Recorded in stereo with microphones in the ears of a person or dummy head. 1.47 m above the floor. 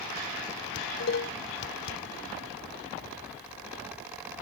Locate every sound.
0.8 s dishes clattering: 60° left (ahead or behind)